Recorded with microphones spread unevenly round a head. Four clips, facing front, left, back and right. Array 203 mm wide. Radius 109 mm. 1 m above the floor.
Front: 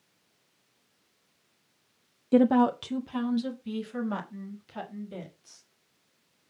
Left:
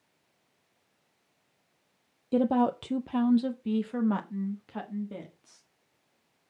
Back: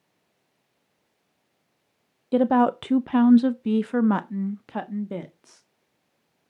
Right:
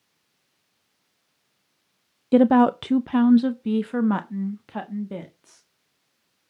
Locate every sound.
2.3 s a woman speaking: 80° right, 0.5 m; by 5.6 s 155° right, 1.8 m